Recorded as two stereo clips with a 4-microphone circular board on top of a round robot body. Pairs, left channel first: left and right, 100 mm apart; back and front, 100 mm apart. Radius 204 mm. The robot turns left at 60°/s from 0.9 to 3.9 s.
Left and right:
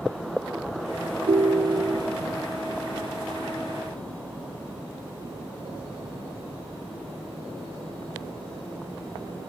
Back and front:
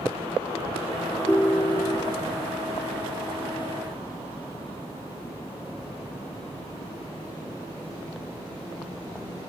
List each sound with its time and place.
1.3 s a ringtone: 100° right, 0.5 m; by 2.2 s 150° right, 0.5 m